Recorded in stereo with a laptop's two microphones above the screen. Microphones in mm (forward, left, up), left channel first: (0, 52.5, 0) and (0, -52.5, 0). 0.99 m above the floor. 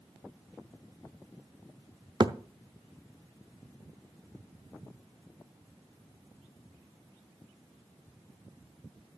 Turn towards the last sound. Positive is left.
turn(degrees=-45)  # may be behind; listen again after turning